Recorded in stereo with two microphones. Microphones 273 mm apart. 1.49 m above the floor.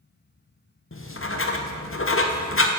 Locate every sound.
0.9 s writing: 50° left (ahead or behind), 0.6 m